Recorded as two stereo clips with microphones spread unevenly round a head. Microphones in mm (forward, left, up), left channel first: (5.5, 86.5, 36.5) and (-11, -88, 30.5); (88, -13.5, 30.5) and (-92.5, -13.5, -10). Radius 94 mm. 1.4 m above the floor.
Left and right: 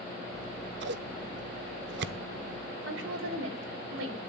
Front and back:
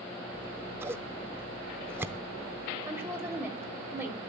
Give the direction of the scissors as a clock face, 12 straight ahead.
4 o'clock.